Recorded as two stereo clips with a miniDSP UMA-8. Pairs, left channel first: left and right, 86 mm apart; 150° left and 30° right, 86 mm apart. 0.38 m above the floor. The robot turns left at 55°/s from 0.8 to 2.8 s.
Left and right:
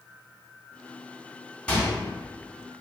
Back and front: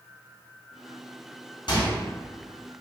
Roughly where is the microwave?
Behind.